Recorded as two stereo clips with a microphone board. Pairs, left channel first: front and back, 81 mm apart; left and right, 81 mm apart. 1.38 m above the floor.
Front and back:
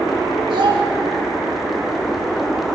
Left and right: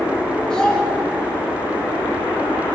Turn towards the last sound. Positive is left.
turn(degrees=170)